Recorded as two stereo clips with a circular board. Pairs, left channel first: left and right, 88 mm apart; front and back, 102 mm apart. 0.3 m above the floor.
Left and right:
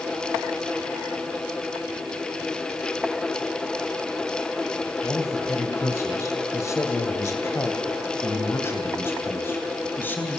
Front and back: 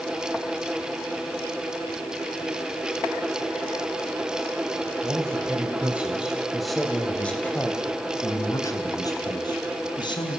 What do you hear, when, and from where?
5.0 s a man speaking: 135° left, 1.9 m; by 10.4 s 25° left, 2.5 m